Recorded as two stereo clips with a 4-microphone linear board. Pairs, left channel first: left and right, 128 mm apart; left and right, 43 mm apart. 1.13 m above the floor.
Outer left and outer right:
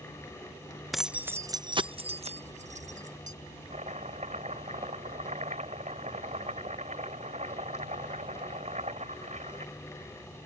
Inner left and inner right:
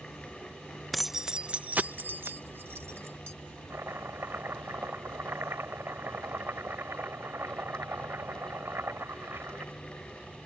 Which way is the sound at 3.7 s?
70° right (ahead or behind).